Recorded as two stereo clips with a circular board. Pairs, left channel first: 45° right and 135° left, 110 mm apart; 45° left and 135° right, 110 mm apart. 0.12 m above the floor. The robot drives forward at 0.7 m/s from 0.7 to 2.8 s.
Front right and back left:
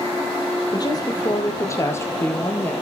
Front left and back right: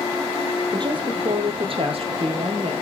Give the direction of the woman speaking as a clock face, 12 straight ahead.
3 o'clock.